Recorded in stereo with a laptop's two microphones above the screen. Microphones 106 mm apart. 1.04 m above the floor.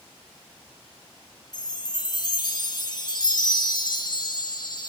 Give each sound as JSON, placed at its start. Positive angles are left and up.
{"t": 1.5, "sound": "a chime", "side_deg": 40, "distance_m": 0.8}